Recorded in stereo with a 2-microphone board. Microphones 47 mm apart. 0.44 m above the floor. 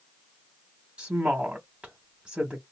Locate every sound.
1.0 s a woman speaking: 25° right (ahead or behind), 0.9 m